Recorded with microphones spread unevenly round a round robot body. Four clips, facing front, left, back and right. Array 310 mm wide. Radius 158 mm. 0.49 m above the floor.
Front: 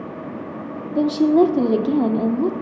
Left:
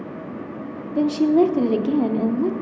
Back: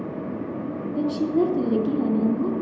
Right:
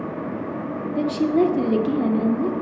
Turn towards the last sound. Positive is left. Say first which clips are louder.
# left 3 dB, front 7 dB
turn(degrees=20)